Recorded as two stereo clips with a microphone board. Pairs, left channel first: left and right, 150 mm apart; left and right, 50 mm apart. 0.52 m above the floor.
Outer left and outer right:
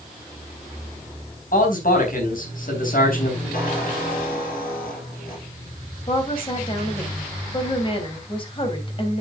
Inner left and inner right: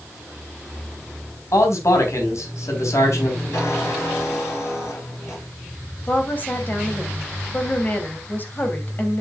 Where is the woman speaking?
35° left (ahead or behind), 3 m.